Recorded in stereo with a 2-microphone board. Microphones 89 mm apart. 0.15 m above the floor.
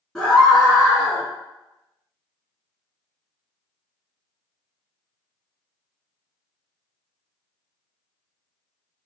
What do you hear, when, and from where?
0.1 s a scream: centre (ahead or behind), 1.4 m; by 1.2 s 25° right (ahead or behind), 1.6 m